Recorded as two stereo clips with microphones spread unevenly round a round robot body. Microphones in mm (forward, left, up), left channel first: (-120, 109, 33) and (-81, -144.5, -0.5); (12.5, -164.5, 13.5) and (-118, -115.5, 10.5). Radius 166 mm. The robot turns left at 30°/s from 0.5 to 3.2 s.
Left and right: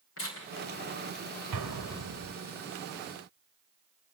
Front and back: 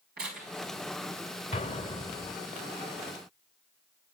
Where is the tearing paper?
135° left, 4 m.